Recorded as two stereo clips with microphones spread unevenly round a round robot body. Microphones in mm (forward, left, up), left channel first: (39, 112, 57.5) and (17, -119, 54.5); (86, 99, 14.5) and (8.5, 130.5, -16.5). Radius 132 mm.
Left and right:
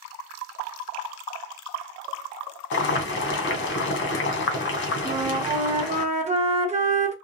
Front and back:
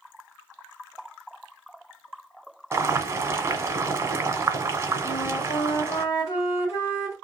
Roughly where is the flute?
Right.